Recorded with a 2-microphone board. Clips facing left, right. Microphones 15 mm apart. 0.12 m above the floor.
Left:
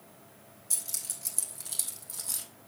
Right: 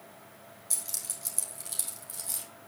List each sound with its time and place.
0.7 s keys jangling: 10° right (ahead or behind), 3.5 m; by 2.5 s 10° left (ahead or behind), 3 m